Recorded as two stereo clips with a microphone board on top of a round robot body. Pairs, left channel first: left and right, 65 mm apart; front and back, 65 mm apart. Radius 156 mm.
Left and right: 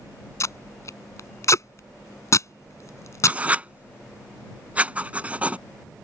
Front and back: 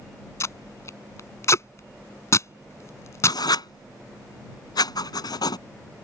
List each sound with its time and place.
0.4 s tape being pulled: 45° left
3.3 s writing: 20° right